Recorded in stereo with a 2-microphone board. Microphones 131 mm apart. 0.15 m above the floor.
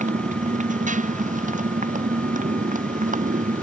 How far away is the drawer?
I don't hear a drawer.